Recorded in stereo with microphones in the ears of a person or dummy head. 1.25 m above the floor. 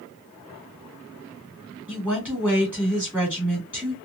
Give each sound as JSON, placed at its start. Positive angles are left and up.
{"t": 1.9, "sound": "a woman speaking", "side_deg": -5, "distance_m": 2.0}